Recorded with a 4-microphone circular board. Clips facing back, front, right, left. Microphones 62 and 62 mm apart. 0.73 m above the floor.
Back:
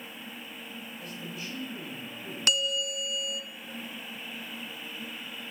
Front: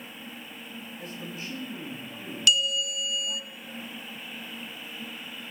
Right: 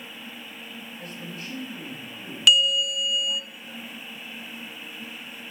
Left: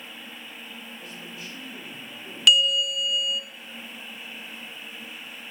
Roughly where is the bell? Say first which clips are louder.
Front 3 dB, even; behind.